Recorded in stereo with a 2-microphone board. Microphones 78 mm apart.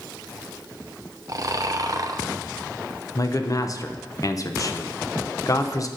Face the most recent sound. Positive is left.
turn(degrees=45)  # may be behind; listen again after turning